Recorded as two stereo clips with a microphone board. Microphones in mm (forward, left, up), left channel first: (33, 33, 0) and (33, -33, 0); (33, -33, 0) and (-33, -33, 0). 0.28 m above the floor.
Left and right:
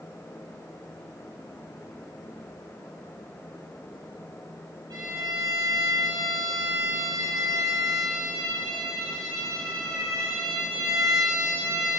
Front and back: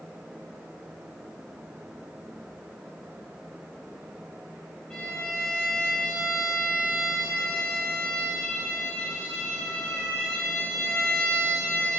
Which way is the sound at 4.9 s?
80° right.